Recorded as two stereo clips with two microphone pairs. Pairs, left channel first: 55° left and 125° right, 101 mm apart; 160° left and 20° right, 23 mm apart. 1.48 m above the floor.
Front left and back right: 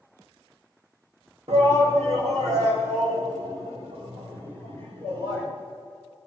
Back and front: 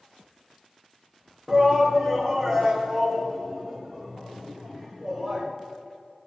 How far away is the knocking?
No knocking in this recording.